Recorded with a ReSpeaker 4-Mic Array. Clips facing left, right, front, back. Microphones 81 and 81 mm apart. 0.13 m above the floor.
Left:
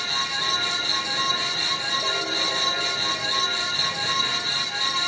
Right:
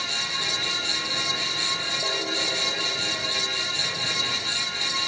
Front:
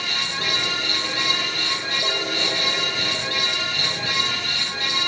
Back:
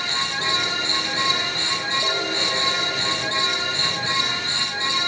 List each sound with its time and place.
Only background noise.